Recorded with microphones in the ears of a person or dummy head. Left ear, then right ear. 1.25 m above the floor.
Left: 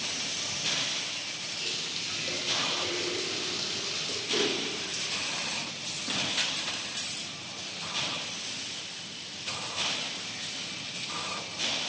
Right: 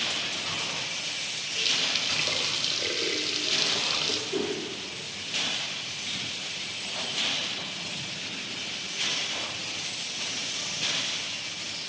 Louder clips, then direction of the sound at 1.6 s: Right 9 dB; 70° right (ahead or behind).